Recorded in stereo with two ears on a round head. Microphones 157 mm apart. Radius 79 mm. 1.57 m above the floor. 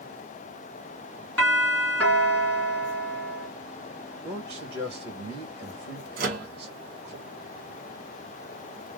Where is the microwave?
55° right (ahead or behind), 1.4 m.